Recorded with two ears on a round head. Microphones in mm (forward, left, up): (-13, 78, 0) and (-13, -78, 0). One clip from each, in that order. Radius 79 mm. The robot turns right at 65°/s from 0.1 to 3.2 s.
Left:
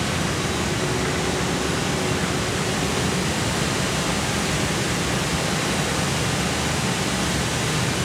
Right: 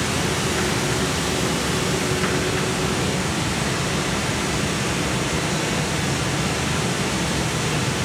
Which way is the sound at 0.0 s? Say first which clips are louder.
Right 2 dB; 140° right.